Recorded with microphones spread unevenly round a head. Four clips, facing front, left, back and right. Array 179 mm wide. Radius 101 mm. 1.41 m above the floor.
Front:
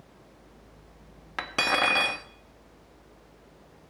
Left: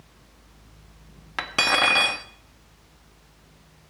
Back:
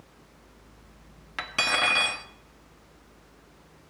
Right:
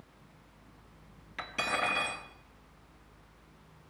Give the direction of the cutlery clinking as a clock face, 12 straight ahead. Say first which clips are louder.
Left 9 dB, front 2 dB; 10 o'clock.